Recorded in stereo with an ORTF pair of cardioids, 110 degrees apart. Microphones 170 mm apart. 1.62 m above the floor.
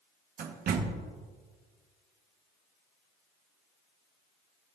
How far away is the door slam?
About 1.3 m.